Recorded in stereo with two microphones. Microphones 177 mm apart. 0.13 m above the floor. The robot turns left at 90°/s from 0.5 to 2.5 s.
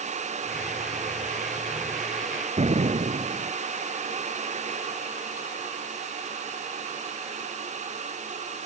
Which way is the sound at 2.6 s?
40° right (ahead or behind).